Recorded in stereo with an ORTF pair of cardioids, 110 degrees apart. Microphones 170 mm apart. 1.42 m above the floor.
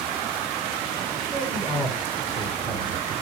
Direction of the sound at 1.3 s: 20° right.